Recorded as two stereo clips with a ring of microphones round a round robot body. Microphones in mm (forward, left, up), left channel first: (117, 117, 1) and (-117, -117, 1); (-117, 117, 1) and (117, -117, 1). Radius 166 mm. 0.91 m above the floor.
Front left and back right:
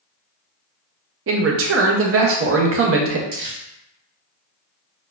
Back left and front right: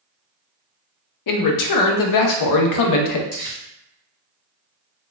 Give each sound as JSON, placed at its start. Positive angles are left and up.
{"t": 1.3, "sound": "a man speaking", "azimuth_deg": 170, "distance_m": 0.6}
{"t": 3.3, "sound": "crumpling", "azimuth_deg": -165, "distance_m": 1.9}